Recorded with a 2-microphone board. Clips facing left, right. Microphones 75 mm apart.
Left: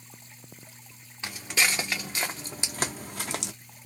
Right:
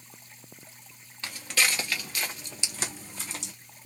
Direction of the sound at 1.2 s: 15° left (ahead or behind).